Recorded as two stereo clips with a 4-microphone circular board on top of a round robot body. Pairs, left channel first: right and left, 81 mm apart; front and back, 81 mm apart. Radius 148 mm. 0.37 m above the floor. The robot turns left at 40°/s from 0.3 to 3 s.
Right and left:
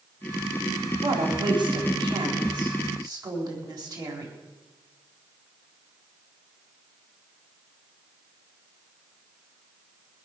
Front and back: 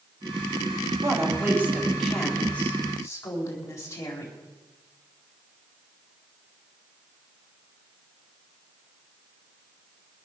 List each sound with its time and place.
1.0 s a woman speaking: 135° left, 4 m; by 4.3 s 55° left, 4 m